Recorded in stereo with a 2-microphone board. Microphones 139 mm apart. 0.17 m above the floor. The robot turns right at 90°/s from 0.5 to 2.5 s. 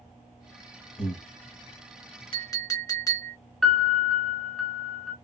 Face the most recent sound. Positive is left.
turn(degrees=0)  # may be behind; listen again after turning